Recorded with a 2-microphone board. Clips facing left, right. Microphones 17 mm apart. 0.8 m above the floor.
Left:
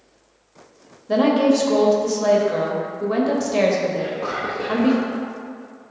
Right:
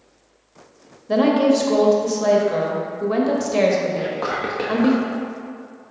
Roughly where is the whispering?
Right.